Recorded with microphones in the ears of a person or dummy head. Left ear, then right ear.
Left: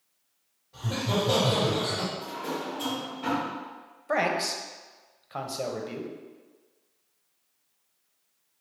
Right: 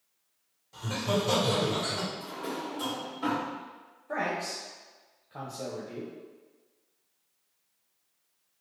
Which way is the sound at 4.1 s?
40° left (ahead or behind).